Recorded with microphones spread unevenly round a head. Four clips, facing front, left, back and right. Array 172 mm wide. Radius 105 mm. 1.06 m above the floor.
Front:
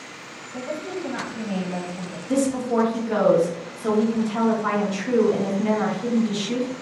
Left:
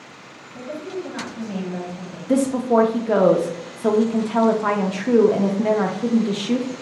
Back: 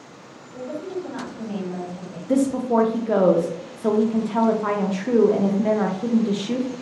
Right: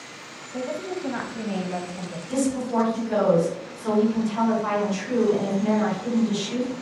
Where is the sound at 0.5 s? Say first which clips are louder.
Right 1 dB, even; 50° right, 1.2 m.